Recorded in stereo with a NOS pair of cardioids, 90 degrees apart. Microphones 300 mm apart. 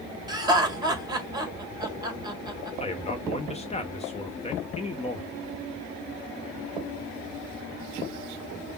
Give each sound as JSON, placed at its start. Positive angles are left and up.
{"t": 0.3, "sound": "laughter", "azimuth_deg": -15, "distance_m": 2.0}
{"t": 2.8, "sound": "a man speaking", "azimuth_deg": 20, "distance_m": 1.1}